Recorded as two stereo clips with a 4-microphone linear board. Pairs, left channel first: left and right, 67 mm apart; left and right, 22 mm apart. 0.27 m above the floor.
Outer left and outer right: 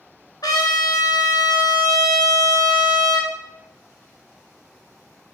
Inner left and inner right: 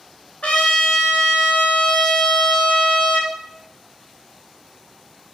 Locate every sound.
0.4 s a trumpet: 75° left (ahead or behind), 1.5 m